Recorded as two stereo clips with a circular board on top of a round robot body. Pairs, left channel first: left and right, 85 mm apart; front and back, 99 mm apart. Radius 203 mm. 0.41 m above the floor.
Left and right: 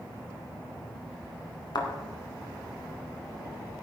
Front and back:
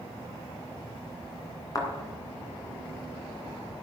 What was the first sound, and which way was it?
A thud, 55° left.